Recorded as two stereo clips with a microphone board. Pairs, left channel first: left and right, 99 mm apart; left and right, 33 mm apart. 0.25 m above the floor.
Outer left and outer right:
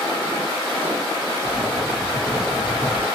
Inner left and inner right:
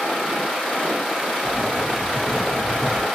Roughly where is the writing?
Centre.